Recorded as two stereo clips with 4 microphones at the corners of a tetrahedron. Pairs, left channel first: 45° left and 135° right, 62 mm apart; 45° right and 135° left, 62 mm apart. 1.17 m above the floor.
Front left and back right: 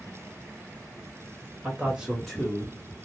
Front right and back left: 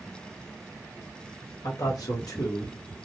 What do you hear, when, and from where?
1.6 s a man speaking: 70° right, 1.5 m; by 2.8 s 20° right, 1.4 m